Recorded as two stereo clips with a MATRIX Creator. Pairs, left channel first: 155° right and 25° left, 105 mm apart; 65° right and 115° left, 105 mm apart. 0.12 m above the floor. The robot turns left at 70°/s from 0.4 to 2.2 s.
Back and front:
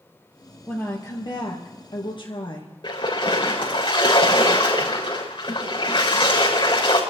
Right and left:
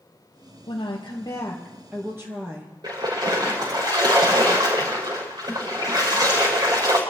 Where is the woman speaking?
75° right, 3 m; by 2.7 s 175° left, 3 m.